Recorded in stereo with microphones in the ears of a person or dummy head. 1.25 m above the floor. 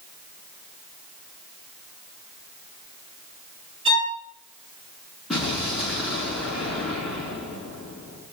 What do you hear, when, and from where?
3.9 s a violin: 30° right (ahead or behind), 4 m
5.3 s an explosion: centre (ahead or behind), 5 m